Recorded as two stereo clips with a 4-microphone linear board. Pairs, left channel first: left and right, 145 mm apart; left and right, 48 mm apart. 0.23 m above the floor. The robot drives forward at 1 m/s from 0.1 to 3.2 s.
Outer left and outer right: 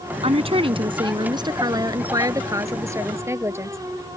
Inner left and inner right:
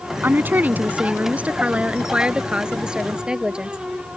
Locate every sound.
0.2 s a woman speaking: 45° right (ahead or behind); by 3.8 s 20° right (ahead or behind)